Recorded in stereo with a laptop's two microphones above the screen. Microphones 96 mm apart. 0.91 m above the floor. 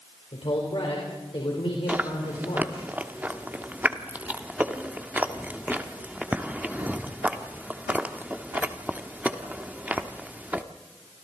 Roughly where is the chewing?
Centre.